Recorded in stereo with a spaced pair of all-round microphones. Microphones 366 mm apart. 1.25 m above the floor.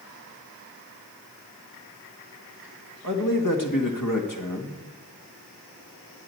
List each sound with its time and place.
3.0 s a man speaking: 60° left (ahead or behind), 1.7 m